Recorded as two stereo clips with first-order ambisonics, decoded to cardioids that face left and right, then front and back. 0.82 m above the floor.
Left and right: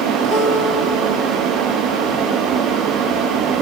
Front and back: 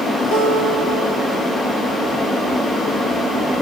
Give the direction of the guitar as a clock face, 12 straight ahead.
1 o'clock.